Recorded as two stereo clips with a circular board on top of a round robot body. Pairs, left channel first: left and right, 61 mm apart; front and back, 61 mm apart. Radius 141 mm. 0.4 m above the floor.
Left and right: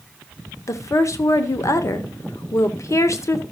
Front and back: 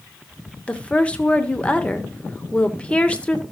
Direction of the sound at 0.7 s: 70° left.